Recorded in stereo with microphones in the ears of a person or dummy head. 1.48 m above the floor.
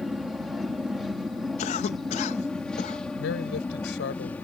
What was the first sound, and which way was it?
An aircraft, centre (ahead or behind).